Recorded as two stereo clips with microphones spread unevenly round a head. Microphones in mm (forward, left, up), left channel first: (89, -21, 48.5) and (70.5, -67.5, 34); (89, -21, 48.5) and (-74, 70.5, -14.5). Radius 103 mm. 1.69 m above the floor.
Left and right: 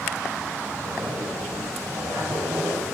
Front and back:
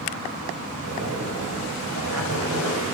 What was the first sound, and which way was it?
A zipper, straight behind.